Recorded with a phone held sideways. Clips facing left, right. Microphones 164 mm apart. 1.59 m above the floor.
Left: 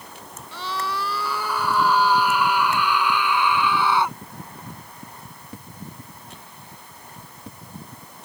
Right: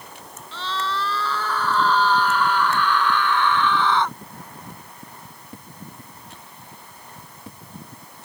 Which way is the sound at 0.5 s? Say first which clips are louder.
Right 1 dB; 10° left (ahead or behind).